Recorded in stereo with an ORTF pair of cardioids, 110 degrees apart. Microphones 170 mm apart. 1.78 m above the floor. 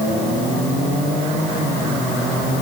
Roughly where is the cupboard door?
I don't hear a cupboard door.